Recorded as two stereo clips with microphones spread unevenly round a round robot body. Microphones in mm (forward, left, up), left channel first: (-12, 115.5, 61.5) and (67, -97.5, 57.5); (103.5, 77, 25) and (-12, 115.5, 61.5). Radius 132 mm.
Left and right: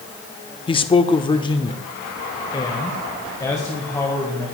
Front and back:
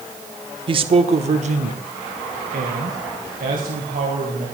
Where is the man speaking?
140° left, 0.8 m; by 4.5 s 170° right, 2.5 m.